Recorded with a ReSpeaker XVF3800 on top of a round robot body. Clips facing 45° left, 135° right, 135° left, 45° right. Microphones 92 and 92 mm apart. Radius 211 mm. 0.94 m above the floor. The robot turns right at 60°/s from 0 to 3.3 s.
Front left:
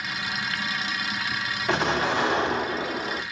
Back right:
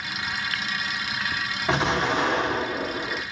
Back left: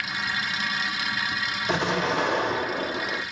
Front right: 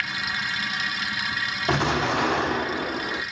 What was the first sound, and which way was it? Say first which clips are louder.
An explosion: back right 1 dB, front right 2 dB; 60° right.